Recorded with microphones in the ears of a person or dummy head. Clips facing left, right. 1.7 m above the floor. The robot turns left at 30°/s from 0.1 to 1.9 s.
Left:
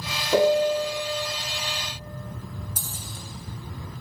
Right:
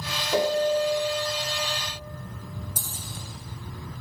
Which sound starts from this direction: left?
A piano, at 0.3 s.